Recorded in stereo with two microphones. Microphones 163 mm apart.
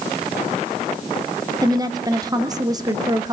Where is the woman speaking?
25° right (ahead or behind), 0.9 m.